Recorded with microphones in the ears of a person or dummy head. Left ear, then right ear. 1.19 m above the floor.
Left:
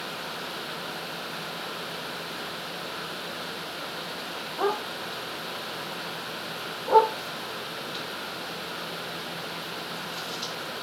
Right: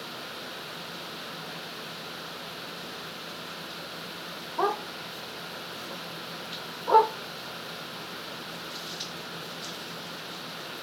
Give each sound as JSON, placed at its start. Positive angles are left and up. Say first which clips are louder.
{"t": 4.6, "sound": "a dog barking", "louder": "even", "side_deg": -45, "distance_m": 1.5}